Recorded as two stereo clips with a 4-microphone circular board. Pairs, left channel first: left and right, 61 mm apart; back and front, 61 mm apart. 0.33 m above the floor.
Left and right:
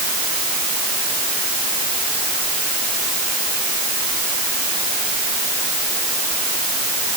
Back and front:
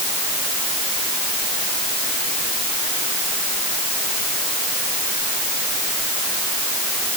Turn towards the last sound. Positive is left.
No sound to turn to.